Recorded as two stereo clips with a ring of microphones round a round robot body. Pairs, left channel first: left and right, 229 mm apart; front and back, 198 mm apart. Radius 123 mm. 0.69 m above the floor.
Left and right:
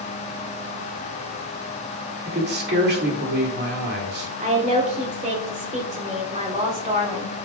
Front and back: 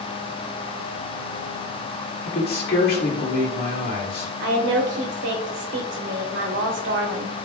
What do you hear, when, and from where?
2.2 s a man speaking: 45° right, 2.5 m
4.4 s a woman speaking: 150° right, 3 m